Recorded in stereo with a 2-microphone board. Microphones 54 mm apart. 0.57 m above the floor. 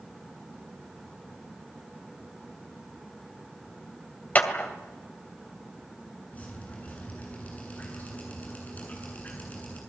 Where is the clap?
30° left (ahead or behind), 2.5 m.